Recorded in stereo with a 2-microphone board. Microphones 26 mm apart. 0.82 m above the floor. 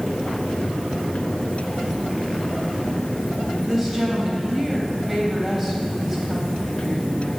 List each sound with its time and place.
3.7 s a woman speaking: centre (ahead or behind), 3.5 m